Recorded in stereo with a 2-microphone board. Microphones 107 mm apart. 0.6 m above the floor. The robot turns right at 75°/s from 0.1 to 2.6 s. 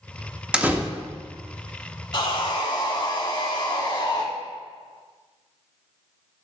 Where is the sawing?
65° left, 1.4 m; by 4.2 s 100° left, 1.4 m.